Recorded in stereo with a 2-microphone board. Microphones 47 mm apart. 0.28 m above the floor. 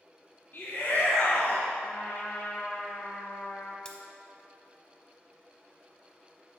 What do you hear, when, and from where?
0.5 s a shout: 50° left (ahead or behind), 1.9 m
1.8 s a trumpet: 60° left (ahead or behind), 1.4 m
3.9 s cutlery clinking: 20° left (ahead or behind), 0.9 m